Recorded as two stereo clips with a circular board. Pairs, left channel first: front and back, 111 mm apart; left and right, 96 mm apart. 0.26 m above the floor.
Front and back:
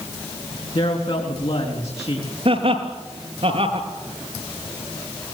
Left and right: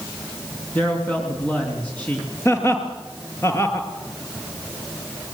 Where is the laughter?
150° left, 4.5 m.